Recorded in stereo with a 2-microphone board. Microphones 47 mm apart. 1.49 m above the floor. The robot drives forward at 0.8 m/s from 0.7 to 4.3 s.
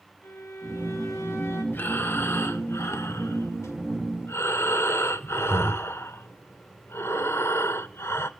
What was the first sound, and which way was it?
A violin, 75° left (ahead or behind).